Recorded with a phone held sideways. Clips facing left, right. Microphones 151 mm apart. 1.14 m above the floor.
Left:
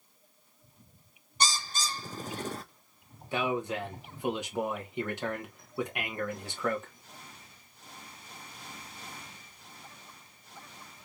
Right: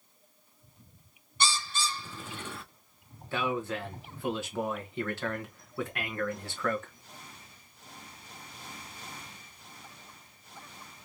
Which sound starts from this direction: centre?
A man speaking, at 3.3 s.